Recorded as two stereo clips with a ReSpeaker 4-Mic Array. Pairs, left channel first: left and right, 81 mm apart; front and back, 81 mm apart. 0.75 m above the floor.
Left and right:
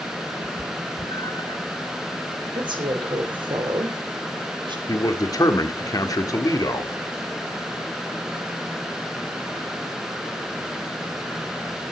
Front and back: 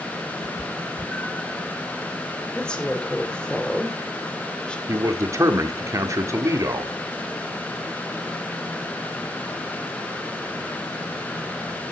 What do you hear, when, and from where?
0.4 s a cat meowing: 55° left, 1.4 m; by 1.6 s 80° left, 1.0 m
2.5 s a woman speaking: 80° right, 2.5 m
4.9 s a man speaking: 130° left, 1.6 m